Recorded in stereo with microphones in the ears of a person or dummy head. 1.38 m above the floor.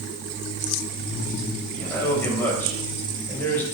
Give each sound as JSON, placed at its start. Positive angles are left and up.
{"t": 1.7, "sound": "a man speaking", "side_deg": 10, "distance_m": 4.0}